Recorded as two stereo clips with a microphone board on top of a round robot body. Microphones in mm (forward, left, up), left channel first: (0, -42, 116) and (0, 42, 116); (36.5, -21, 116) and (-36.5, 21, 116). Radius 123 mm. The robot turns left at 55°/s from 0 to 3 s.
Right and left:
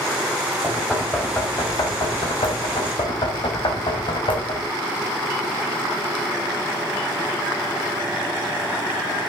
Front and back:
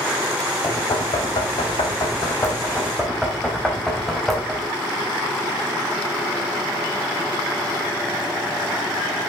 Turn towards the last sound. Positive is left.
turn(degrees=-115)